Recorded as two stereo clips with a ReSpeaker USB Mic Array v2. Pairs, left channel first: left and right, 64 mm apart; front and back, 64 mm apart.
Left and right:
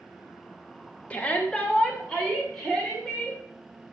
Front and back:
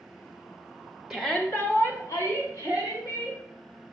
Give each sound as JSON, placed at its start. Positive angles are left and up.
{"t": 1.1, "sound": "a shout", "azimuth_deg": 105, "distance_m": 0.9}